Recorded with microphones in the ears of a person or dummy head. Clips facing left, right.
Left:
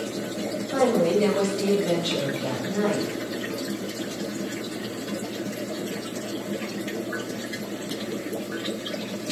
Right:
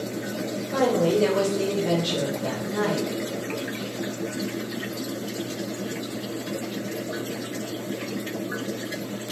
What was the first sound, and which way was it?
A woman speaking, 10° right (ahead or behind).